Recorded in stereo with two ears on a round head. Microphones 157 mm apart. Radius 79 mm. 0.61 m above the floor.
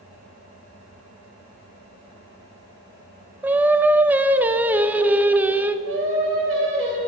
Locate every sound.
3.4 s singing: 10° right (ahead or behind), 0.6 m
5.8 s singing: 85° right, 4 m